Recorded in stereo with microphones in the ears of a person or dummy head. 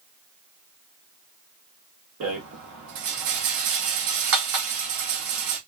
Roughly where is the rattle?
Right.